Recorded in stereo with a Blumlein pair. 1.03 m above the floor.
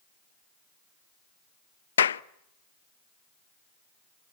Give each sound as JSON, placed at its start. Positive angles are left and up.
{"t": 2.0, "sound": "a clap", "azimuth_deg": 65, "distance_m": 0.6}